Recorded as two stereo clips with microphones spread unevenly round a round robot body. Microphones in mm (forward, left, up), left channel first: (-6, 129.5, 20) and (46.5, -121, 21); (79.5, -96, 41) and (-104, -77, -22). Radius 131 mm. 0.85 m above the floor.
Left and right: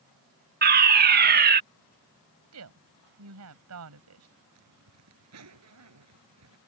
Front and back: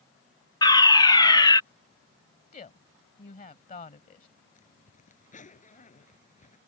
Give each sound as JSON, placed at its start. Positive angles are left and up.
{"t": 0.6, "sound": "a fire alarm", "azimuth_deg": -90}
{"t": 2.5, "sound": "a woman speaking", "azimuth_deg": -50}
{"t": 4.5, "sound": "a zipper", "azimuth_deg": -55}